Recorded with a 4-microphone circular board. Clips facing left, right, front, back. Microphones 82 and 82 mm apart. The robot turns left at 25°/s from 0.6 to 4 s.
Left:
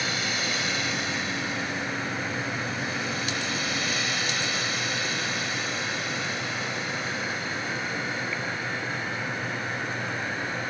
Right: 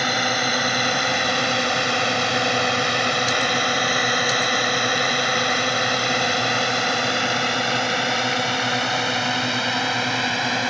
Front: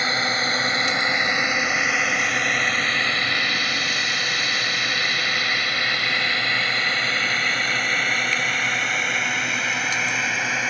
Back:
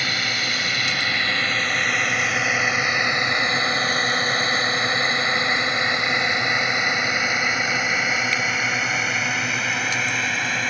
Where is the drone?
60° right; by 10.7 s 85° right.